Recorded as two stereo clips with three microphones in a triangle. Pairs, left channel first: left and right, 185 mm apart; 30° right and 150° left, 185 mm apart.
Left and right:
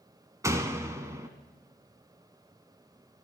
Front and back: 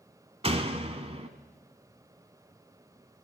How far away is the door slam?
About 1.2 m.